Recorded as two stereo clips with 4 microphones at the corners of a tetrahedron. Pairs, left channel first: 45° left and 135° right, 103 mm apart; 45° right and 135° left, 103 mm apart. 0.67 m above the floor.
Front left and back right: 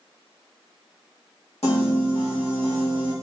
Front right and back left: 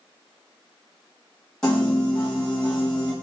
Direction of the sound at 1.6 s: 35° left.